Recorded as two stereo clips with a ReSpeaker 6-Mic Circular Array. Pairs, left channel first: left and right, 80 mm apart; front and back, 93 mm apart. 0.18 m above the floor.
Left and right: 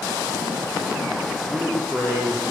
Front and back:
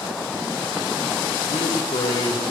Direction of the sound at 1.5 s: Straight ahead.